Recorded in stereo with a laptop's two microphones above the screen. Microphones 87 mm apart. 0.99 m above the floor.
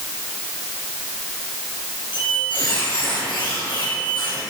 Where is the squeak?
70° left (ahead or behind), 3.5 m.